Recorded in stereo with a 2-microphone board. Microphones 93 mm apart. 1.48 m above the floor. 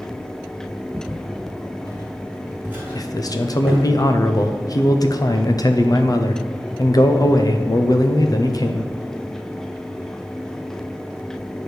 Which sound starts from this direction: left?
A man speaking, at 3.0 s.